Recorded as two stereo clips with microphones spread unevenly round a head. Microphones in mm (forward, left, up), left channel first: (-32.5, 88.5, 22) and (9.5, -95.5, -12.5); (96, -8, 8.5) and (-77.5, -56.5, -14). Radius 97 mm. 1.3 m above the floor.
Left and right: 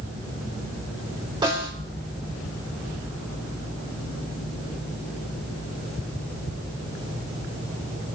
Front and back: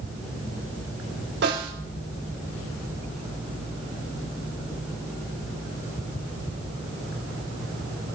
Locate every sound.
1.4 s a snare drum: 145° right, 5.5 m